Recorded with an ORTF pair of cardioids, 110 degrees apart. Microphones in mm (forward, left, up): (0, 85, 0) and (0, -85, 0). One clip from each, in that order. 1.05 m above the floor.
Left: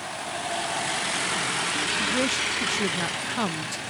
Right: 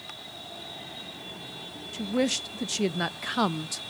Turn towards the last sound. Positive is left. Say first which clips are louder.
# right 1 dB
turn(degrees=-10)